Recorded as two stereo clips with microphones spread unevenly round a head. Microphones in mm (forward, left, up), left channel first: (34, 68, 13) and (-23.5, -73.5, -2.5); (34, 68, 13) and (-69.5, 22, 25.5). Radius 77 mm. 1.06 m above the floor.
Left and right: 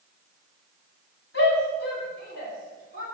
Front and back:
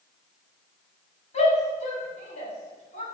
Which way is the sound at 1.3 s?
50° left.